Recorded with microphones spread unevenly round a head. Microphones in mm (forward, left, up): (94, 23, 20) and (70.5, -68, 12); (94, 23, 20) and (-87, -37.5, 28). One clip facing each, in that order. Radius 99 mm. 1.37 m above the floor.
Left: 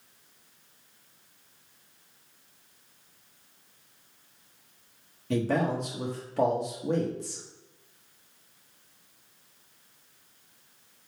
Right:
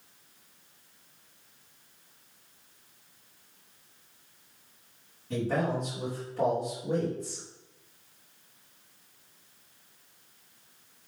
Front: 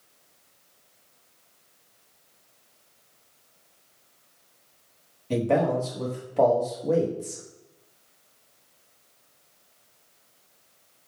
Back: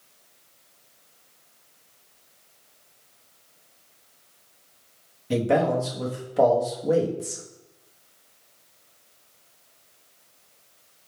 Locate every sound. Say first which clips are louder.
5.3 s a man speaking: left 2 dB, back 1 dB; 120° left, 1.1 m